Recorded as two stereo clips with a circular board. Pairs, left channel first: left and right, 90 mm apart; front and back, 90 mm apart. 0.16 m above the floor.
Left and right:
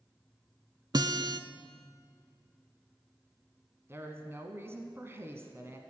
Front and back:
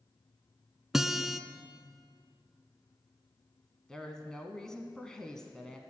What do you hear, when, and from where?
0.9 s a guitar: 95° right, 0.5 m
3.9 s a woman speaking: 75° right, 1.1 m